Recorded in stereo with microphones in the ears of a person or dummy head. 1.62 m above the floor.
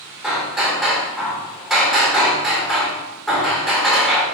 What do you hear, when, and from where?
0.2 s hammering: centre (ahead or behind), 1.7 m